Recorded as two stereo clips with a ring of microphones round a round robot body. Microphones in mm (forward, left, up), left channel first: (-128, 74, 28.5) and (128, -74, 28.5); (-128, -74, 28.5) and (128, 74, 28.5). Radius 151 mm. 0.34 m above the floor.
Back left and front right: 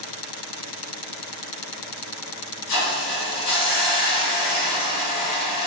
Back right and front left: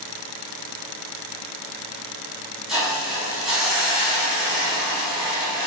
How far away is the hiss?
About 2.5 m.